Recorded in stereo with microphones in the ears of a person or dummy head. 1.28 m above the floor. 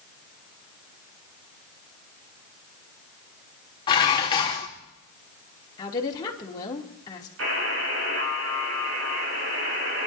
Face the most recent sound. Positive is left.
turn(degrees=-85)